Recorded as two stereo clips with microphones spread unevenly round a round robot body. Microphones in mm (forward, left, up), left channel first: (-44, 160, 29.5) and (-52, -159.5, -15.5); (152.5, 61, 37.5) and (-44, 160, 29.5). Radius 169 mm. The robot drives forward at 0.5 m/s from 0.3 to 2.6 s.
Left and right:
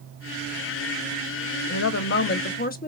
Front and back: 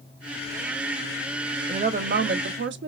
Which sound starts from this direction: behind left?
A woman speaking, at 1.7 s.